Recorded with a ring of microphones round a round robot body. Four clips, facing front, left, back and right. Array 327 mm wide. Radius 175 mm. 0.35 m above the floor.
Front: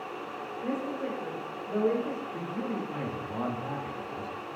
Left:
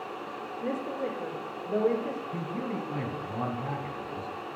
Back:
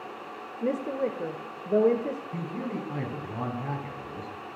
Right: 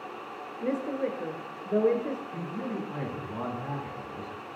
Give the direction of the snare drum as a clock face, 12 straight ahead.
I don't hear a snare drum.